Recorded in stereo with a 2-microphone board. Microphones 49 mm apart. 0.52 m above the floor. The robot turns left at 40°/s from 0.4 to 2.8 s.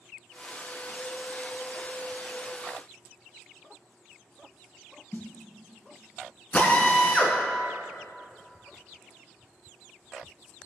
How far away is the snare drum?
About 1.2 m.